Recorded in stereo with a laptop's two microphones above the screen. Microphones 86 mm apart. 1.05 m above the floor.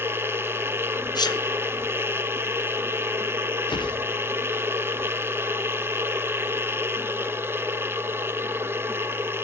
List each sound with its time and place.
0.0 s a machine running: 25° right (ahead or behind), 0.7 m
1.1 s a sneeze: 55° left (ahead or behind), 1.0 m
3.7 s a whoosh: 65° left (ahead or behind), 0.7 m